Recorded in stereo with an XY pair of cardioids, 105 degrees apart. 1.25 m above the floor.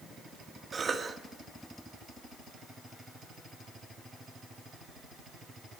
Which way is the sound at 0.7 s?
30° right.